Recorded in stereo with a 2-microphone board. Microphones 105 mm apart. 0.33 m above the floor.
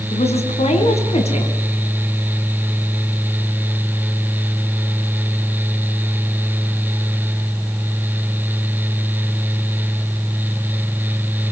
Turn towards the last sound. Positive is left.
turn(degrees=70)  # may be behind; listen again after turning